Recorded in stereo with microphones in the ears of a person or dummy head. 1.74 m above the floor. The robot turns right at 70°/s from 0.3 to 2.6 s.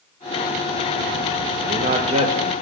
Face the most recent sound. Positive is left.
turn(degrees=0)